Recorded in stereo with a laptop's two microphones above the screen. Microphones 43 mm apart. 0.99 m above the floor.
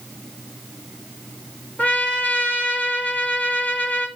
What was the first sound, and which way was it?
A trumpet, 40° left (ahead or behind).